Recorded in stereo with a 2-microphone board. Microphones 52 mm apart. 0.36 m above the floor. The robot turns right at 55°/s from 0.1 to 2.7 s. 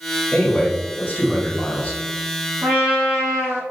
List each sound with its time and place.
0.3 s a man speaking: 25° left, 1.3 m; by 2.0 s 120° left, 1.3 m
2.6 s a trumpet: 50° right (ahead or behind), 1.9 m; by 3.6 s 55° right (ahead or behind), 1.9 m